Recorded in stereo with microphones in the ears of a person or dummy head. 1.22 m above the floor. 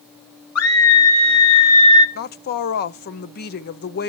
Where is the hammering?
No hammering in this recording.